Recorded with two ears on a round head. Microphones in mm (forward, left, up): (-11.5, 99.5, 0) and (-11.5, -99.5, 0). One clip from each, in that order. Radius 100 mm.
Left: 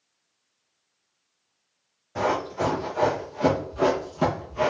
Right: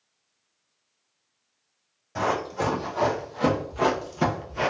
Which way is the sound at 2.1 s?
25° right (ahead or behind).